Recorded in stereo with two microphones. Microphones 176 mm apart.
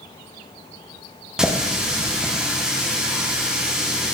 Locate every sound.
1.4 s a running tap: 5° right (ahead or behind), 0.8 m